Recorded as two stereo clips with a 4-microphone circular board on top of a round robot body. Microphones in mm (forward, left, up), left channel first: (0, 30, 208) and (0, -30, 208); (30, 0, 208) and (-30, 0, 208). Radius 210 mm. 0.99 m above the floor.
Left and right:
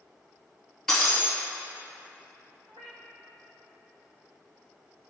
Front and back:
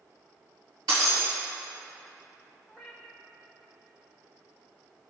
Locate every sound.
0.9 s breaking glass: 170° left, 3 m
2.7 s a cat meowing: 90° right, 1.1 m